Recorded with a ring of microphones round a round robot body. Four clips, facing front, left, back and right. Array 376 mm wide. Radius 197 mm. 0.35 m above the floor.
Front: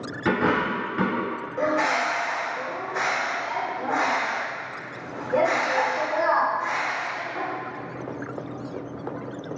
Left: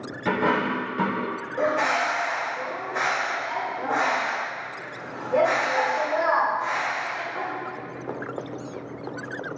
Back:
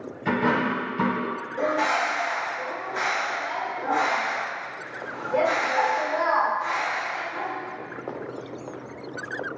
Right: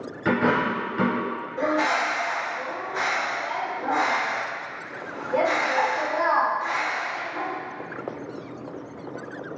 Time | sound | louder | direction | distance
0.2 | a dropped coin | right 1 dB, front 1 dB | 10° right | 1.6 m
1.6 | a bird | even, front 1 dB | 45° left | 1.5 m